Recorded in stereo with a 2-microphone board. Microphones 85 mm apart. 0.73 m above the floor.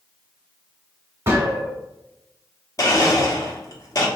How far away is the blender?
About 1.0 m.